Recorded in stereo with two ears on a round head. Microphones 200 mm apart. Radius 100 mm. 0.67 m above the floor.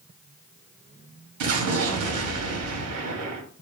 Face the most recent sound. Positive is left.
turn(degrees=-75)  # may be behind; listen again after turning